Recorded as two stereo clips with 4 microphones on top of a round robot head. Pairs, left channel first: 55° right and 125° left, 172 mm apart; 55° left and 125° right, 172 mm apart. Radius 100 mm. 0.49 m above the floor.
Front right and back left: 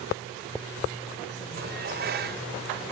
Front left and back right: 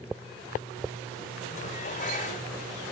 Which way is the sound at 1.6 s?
100° left.